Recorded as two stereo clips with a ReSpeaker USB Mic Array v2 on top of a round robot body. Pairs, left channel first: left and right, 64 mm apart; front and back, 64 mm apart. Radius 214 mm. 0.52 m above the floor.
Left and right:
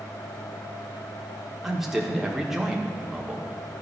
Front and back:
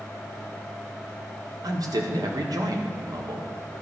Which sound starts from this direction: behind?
A man speaking, at 1.6 s.